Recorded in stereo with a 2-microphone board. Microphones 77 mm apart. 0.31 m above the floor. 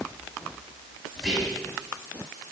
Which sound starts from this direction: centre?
Whispering, at 1.2 s.